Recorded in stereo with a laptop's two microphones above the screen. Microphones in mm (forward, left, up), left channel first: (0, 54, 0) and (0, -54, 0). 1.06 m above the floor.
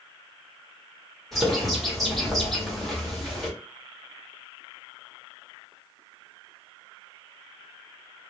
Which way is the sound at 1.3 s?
Centre (ahead or behind).